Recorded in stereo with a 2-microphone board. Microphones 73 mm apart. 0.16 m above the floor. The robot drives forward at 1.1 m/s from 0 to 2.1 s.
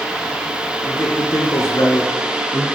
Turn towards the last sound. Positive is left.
turn(degrees=50)  # may be behind; listen again after turning